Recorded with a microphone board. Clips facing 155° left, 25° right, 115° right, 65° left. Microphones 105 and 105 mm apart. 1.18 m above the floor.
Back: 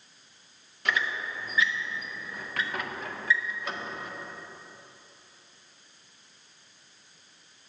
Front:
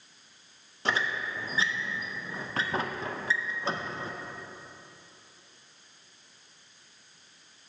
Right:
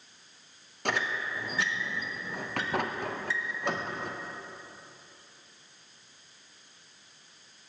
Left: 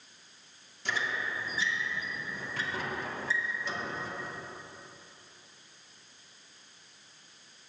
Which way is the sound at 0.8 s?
85° right.